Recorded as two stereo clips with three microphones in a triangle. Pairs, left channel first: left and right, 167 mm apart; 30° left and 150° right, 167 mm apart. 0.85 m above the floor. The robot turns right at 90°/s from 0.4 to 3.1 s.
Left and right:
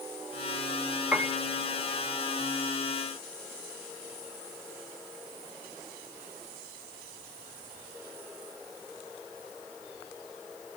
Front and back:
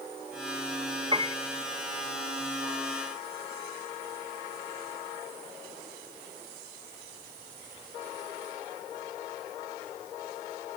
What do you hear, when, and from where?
1.1 s a piano: 165° right, 0.6 m; by 1.4 s 145° right, 0.6 m